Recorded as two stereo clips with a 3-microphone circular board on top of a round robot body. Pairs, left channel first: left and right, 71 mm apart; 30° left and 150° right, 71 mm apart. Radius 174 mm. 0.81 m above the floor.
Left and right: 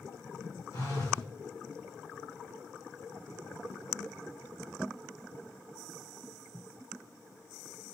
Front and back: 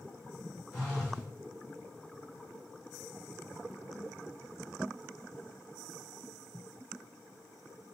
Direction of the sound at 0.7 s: 110° left.